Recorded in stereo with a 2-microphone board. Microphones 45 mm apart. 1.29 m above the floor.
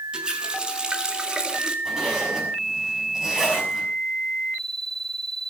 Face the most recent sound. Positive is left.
turn(degrees=-15)  # may be behind; listen again after turning